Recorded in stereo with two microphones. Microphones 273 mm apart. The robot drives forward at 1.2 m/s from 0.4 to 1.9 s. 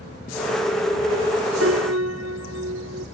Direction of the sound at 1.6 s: 60° right (ahead or behind).